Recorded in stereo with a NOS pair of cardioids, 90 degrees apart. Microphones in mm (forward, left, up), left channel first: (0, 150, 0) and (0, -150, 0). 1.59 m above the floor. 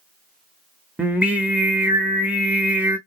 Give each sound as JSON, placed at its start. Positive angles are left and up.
{"t": 1.0, "sound": "singing", "azimuth_deg": -5, "distance_m": 0.6}